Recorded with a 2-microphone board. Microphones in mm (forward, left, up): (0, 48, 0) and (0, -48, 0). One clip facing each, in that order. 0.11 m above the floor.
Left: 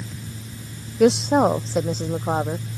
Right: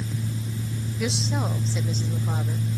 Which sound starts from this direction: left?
A woman speaking, at 1.0 s.